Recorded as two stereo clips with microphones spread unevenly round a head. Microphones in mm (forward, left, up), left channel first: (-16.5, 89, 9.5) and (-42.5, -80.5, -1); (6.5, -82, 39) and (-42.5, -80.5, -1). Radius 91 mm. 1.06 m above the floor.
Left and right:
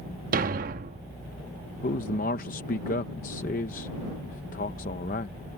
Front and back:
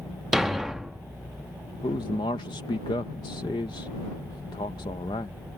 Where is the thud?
60° right.